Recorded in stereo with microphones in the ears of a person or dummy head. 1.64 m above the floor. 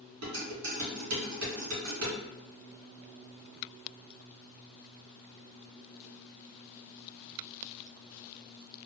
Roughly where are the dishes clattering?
Right.